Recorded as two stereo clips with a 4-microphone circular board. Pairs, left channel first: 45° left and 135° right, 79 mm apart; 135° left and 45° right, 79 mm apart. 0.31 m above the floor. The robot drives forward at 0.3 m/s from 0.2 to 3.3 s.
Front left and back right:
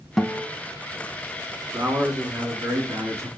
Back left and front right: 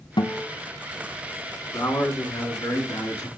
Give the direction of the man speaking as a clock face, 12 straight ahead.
6 o'clock.